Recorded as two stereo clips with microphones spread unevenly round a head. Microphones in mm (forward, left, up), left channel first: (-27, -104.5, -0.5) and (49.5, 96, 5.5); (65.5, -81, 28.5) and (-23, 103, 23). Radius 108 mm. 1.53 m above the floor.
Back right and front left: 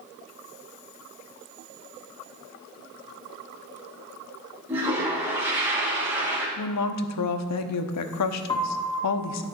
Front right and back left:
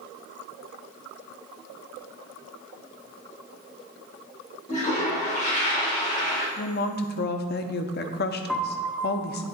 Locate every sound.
4.7 s a toilet flushing: 10° right, 2.0 m
6.6 s a woman speaking: 110° right, 0.7 m
8.5 s a piano: 140° right, 0.9 m